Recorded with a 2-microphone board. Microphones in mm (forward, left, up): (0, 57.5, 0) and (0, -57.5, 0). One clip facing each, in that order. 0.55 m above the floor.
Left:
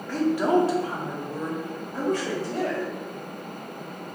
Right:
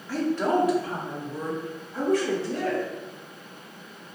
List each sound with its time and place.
0.1 s a woman speaking: 10° right (ahead or behind), 0.8 m; by 2.8 s 60° left (ahead or behind), 2.5 m